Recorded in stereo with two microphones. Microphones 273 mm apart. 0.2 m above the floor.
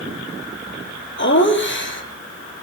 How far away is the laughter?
About 5 m.